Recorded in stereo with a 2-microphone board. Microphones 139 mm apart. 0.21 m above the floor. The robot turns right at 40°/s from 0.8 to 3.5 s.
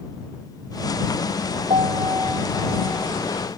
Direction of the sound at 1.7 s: 45° right.